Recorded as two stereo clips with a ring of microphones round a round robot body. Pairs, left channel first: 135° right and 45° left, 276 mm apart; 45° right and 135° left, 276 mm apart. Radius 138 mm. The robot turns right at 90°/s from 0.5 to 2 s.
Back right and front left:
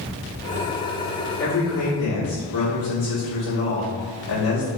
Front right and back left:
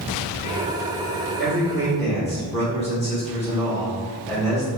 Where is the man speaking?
175° left, 1.5 m; by 4.7 s 130° right, 1.5 m.